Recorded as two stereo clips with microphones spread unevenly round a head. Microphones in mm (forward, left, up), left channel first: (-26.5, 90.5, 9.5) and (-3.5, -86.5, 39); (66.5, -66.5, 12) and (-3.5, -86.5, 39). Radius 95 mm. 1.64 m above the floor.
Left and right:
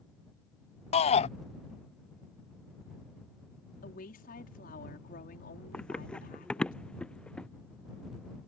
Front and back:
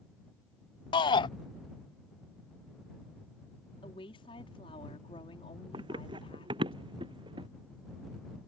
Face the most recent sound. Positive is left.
turn(degrees=-175)